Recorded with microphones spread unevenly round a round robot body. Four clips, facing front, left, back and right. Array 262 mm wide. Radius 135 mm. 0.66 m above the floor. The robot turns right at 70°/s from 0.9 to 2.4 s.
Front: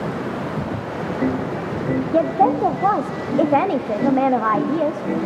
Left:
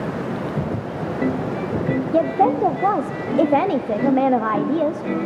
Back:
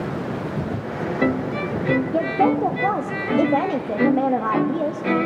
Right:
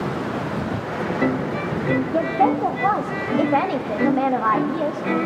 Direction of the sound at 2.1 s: 35° left.